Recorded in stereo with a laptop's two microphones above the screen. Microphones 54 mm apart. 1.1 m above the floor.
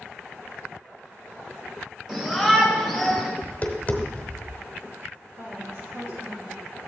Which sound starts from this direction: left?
Tapping, at 3.4 s.